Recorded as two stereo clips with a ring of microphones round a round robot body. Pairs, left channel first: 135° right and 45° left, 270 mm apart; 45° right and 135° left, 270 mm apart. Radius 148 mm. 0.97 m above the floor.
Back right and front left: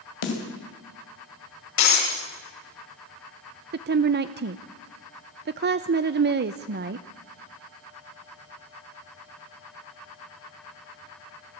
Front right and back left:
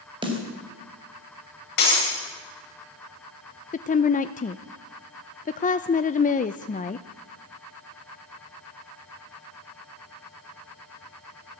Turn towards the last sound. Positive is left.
turn(degrees=10)